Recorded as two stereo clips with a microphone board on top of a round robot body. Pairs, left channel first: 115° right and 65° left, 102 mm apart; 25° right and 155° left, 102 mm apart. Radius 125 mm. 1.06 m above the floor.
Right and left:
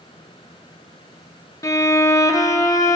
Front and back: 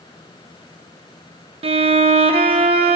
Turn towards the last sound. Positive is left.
turn(degrees=-175)